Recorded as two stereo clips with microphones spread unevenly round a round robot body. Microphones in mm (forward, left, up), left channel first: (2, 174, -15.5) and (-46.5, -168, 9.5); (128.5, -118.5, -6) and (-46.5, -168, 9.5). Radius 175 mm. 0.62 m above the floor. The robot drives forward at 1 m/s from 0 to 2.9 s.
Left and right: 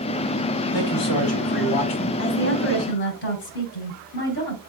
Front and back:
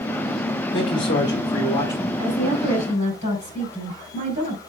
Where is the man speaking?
45° left, 3.5 m; by 2.1 s 70° left, 2.5 m.